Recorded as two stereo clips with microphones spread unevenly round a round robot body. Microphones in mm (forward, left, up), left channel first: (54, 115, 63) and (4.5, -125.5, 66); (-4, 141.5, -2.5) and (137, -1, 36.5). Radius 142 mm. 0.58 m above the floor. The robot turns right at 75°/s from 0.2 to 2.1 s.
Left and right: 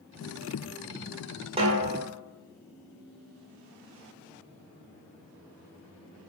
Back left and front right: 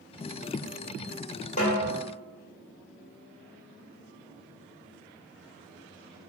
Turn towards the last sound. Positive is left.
turn(degrees=-130)